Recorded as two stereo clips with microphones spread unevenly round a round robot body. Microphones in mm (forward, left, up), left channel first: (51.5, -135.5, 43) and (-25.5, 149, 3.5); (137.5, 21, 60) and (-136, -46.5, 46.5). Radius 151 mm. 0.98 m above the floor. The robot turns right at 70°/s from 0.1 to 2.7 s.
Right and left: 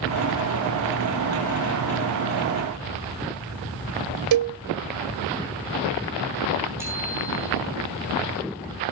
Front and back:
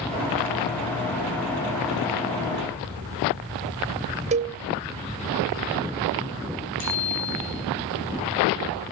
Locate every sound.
4.3 s a cowbell: 130° left, 0.5 m
6.8 s a bicycle bell: 25° left, 10 m